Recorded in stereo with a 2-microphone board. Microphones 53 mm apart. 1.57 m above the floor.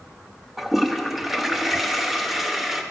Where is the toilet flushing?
5° right (ahead or behind), 0.5 m.